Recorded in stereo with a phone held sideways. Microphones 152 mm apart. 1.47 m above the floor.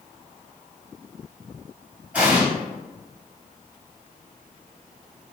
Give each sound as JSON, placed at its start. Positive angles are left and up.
{"t": 2.1, "sound": "an explosion", "side_deg": -10, "distance_m": 1.7}